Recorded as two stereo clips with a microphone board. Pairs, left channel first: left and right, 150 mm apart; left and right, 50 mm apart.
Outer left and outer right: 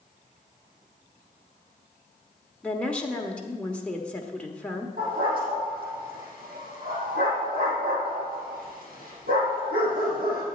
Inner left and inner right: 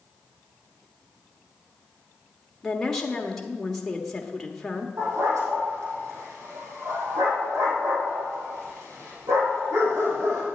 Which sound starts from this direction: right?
A dog barking, at 5.0 s.